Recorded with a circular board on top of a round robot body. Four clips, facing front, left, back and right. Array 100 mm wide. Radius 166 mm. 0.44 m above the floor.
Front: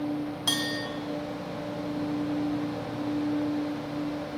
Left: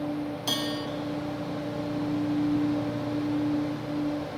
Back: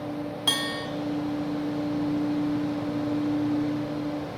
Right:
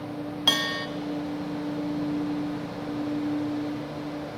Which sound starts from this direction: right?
A bell, at 0.5 s.